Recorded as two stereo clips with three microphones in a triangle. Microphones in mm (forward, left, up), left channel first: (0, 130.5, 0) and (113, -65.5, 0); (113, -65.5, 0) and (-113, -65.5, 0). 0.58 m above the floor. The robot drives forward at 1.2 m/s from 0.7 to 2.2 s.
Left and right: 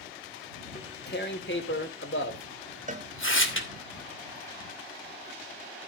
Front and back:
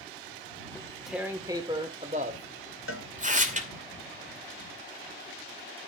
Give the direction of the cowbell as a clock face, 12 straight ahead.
12 o'clock.